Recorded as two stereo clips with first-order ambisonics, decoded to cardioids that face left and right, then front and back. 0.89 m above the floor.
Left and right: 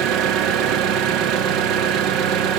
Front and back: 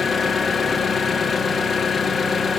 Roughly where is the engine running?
Ahead right.